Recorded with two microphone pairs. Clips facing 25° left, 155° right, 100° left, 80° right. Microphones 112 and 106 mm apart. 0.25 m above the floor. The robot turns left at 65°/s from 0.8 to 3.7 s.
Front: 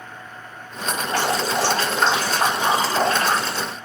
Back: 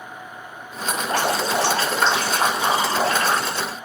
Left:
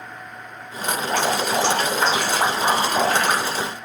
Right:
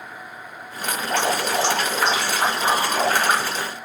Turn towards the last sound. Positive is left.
turn(degrees=5)